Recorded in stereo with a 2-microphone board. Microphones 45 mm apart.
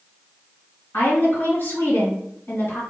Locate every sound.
0.9 s a woman speaking: 50° left (ahead or behind), 1.9 m